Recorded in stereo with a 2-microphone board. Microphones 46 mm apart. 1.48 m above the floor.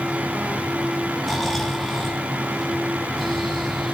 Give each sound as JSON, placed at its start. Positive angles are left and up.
{"t": 1.2, "sound": "snoring", "side_deg": 5, "distance_m": 2.5}